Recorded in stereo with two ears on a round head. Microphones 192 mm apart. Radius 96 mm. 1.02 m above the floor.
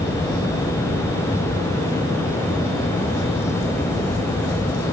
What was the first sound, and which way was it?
Only background noise.